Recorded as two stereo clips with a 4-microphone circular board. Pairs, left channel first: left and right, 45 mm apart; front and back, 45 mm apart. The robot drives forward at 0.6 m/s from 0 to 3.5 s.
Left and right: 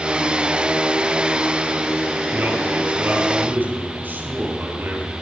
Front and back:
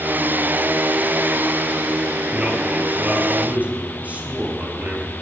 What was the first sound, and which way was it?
A man speaking, 125° right.